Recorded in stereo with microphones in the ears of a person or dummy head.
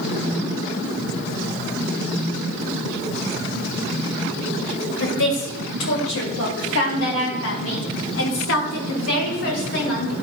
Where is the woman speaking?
75° left (ahead or behind), 2 m.